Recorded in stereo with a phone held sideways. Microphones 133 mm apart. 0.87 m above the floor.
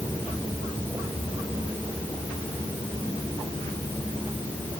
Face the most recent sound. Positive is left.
No sound to turn to.